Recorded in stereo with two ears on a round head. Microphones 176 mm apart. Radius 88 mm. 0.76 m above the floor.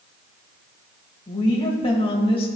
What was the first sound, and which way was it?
A woman speaking, 25° left (ahead or behind).